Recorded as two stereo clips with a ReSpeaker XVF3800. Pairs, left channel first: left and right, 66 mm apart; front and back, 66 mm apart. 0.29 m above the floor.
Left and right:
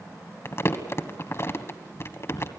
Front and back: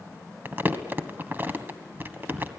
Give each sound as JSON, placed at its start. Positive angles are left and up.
{"t": 0.5, "sound": "crumpling", "azimuth_deg": 130, "distance_m": 1.5}